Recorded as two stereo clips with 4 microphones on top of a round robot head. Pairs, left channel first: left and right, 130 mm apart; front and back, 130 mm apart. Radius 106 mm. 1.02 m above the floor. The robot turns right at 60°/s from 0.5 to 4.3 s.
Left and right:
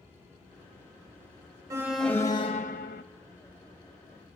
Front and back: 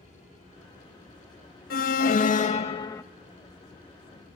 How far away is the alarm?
About 0.7 m.